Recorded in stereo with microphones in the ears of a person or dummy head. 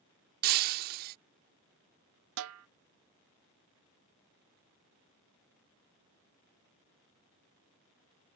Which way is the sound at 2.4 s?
80° right.